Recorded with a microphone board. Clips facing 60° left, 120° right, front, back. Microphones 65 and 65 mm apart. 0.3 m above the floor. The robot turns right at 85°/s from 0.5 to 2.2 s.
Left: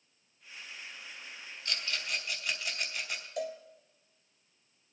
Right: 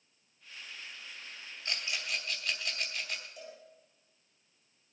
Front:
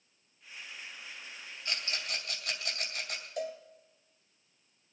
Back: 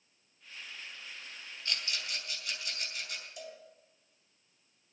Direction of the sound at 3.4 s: 45° left.